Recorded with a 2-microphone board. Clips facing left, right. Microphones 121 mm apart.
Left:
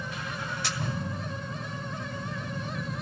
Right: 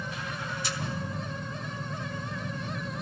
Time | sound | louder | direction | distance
0.6 | a camera shutter | even | 80° left | 2.0 m